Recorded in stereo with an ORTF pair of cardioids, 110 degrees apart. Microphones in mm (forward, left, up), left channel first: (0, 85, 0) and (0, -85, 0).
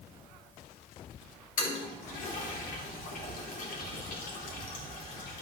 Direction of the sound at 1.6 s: 60° left.